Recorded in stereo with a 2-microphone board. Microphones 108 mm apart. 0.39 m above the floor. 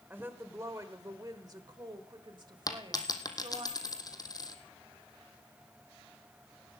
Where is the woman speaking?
20° right (ahead or behind), 1.4 m; by 3.7 s 45° right (ahead or behind), 2 m.